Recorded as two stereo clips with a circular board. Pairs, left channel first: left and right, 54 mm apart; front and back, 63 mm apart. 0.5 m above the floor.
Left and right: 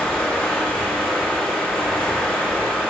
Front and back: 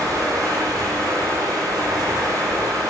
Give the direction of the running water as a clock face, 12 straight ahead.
6 o'clock.